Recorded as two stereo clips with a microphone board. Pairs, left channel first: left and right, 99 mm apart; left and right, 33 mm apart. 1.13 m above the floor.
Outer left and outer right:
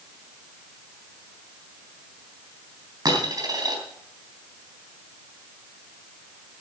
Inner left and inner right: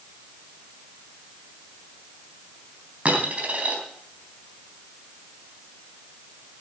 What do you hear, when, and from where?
3.0 s a dropped coin: 45° right (ahead or behind), 3.5 m